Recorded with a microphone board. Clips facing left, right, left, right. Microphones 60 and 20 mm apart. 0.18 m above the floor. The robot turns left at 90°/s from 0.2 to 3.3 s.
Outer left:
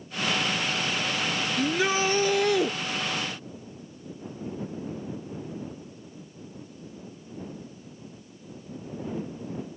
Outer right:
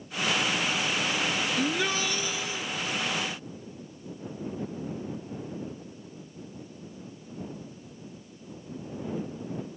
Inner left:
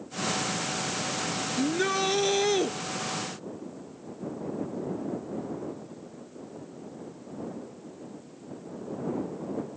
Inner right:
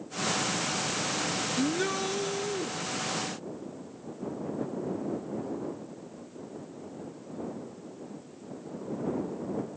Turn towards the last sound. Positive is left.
turn(degrees=30)